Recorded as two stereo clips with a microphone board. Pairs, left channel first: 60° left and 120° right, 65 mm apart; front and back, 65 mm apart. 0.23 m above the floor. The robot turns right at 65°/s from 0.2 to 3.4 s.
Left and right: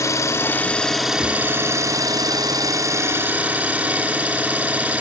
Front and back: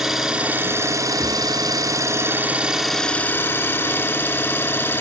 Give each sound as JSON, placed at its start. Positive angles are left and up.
{"t": 0.0, "sound": "an engine running", "azimuth_deg": 95, "distance_m": 0.7}